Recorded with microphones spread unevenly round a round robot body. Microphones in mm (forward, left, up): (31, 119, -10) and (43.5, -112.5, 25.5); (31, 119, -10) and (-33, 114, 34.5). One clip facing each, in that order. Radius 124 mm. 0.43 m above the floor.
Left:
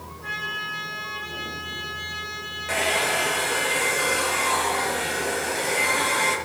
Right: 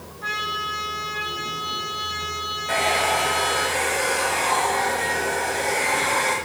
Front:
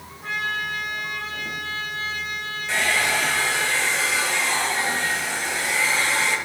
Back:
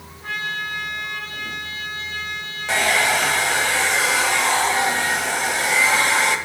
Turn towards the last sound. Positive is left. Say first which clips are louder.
# right 2 dB, back 4 dB
turn(degrees=170)